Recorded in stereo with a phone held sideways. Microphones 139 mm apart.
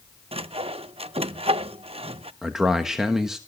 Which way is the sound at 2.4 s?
5° right (ahead or behind).